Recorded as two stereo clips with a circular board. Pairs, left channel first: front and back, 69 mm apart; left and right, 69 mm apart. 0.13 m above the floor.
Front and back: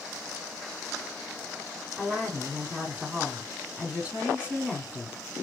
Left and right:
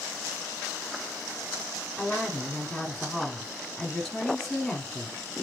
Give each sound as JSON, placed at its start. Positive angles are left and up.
{"t": 2.0, "sound": "a woman speaking", "azimuth_deg": 165, "distance_m": 1.1}